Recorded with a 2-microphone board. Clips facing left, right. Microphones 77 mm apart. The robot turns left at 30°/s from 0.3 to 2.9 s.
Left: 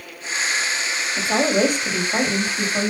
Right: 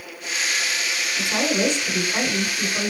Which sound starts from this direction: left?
A woman speaking, at 1.2 s.